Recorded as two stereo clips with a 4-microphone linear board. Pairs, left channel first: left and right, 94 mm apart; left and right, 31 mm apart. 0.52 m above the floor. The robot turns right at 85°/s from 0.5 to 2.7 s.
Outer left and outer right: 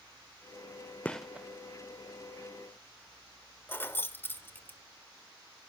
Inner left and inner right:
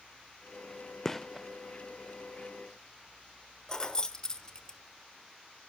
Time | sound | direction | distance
1.1 | a gunshot | 15° left (ahead or behind) | 0.6 m
3.7 | keys jangling | 25° left (ahead or behind) | 0.9 m